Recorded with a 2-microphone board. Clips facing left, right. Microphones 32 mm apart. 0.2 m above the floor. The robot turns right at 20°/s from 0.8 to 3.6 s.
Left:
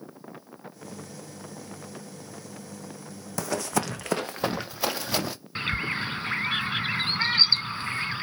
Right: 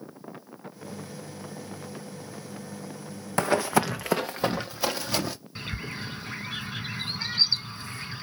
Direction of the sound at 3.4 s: 40° right (ahead or behind).